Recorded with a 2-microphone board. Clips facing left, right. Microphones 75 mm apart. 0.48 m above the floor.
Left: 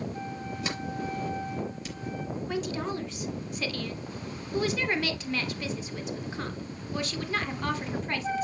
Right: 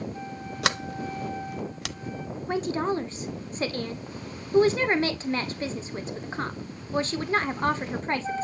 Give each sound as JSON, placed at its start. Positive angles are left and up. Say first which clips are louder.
{"t": 0.6, "sound": "a sliding door", "louder": "right 6 dB", "side_deg": -80, "distance_m": 0.6}
{"t": 2.5, "sound": "a woman speaking", "louder": "right 7 dB", "side_deg": -35, "distance_m": 1.2}